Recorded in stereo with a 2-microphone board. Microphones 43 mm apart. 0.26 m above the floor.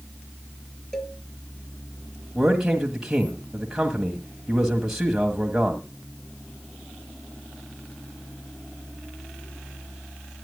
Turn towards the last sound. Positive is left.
turn(degrees=-10)  # may be behind; listen again after turning